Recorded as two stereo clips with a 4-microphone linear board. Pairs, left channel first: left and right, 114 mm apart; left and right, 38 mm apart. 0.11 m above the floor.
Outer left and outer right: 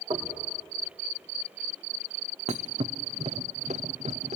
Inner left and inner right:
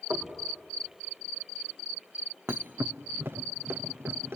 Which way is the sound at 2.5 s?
80° right.